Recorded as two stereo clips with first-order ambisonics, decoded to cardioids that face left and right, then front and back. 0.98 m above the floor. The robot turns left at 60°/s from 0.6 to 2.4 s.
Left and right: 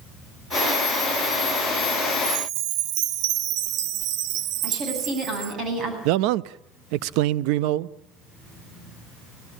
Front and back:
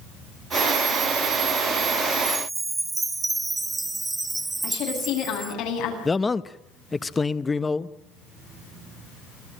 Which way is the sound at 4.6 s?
35° right.